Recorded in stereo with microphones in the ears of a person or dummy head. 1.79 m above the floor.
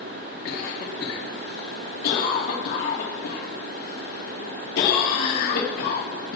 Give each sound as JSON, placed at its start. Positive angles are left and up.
{"t": 0.5, "sound": "a cough", "side_deg": 70, "distance_m": 3.5}